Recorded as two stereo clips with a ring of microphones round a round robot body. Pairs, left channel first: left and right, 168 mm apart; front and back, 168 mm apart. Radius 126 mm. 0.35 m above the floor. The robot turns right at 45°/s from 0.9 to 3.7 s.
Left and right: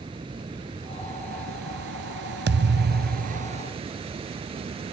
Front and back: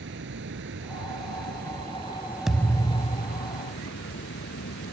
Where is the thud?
90° right; by 3.6 s 40° right.